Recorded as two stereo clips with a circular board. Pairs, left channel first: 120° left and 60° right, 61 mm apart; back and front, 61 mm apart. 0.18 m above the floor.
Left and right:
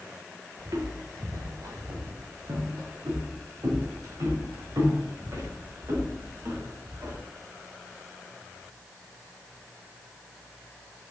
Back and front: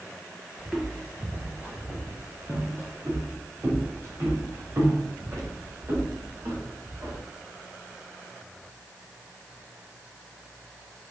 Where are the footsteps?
80° right, 3 m; by 7.2 s 30° right, 7.5 m.